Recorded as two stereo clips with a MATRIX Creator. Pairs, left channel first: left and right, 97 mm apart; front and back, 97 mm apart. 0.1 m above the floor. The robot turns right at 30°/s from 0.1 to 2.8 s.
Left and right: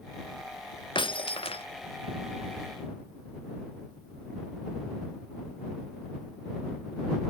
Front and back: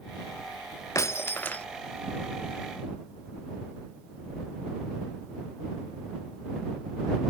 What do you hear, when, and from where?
0.9 s breaking glass: 55° left; by 1.6 s 80° left